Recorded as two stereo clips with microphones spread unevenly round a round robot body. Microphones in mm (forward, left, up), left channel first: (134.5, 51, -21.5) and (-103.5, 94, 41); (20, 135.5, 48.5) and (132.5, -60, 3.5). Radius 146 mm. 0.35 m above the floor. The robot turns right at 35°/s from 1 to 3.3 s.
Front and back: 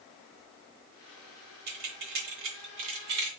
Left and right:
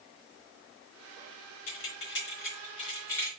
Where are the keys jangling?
155° left, 1.2 m; by 3.3 s 150° right, 1.2 m.